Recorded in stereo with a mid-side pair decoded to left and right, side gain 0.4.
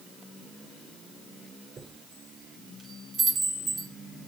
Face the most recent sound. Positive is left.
turn(degrees=-50)